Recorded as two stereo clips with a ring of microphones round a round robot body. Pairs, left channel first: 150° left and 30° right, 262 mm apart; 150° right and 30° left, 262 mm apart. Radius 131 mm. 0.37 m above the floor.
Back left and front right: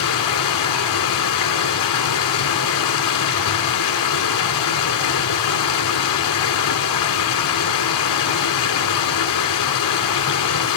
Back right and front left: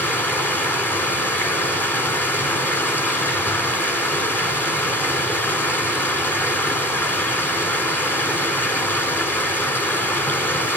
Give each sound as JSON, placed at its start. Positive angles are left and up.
{"t": 0.0, "sound": "running water", "azimuth_deg": 125, "distance_m": 1.7}